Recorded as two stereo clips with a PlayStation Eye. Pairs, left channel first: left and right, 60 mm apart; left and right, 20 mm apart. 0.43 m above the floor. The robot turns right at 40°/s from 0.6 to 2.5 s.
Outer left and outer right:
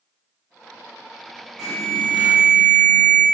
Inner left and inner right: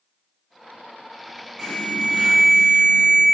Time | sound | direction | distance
1.6 | an alarm | 10° left | 3.5 m